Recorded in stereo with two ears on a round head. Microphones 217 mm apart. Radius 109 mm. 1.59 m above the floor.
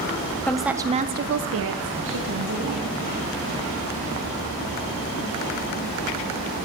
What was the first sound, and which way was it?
A woman speaking, 5° left (ahead or behind).